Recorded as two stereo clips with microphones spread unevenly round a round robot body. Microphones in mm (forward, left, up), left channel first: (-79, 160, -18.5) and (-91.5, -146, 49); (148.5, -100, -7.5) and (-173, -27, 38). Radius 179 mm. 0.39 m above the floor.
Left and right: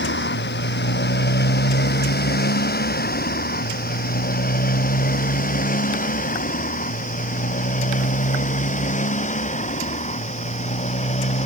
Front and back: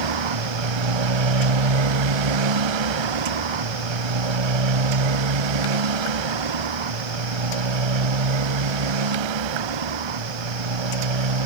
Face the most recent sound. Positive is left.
turn(degrees=155)